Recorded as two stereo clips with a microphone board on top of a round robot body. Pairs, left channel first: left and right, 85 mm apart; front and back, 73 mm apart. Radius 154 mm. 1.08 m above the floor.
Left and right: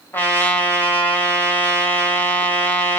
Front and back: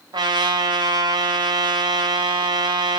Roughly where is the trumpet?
Behind left.